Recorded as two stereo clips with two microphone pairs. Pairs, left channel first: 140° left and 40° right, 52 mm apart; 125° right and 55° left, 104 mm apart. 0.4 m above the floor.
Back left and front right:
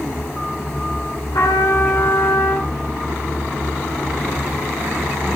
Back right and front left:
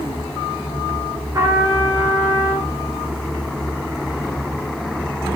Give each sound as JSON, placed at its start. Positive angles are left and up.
{"t": 1.3, "sound": "a trumpet", "azimuth_deg": 115, "distance_m": 8.0}